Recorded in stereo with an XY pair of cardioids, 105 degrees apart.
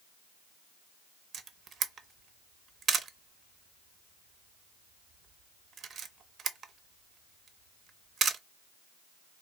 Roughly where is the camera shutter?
Ahead right.